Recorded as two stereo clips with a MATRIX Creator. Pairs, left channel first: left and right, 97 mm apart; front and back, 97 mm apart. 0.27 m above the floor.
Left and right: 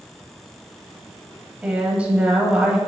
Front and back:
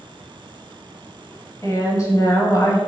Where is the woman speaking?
20° right, 1.1 m.